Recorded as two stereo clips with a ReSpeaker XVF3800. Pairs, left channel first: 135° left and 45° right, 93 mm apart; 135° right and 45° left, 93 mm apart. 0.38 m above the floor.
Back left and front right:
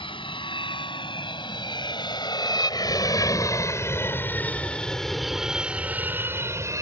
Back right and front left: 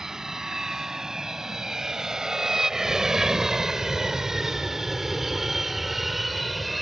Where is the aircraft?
130° left; by 6.8 s 45° right.